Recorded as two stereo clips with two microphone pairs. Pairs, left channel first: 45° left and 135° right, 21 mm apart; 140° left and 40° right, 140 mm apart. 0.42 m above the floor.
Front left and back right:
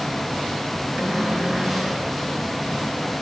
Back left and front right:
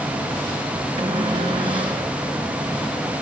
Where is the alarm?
No alarm in this recording.